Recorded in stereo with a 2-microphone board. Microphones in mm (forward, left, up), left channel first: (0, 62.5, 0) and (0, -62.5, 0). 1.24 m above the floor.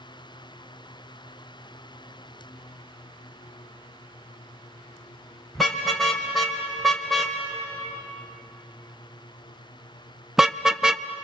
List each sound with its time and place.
5.5 s a car horn: centre (ahead or behind), 3.5 m; by 11.1 s 5° right (ahead or behind), 0.6 m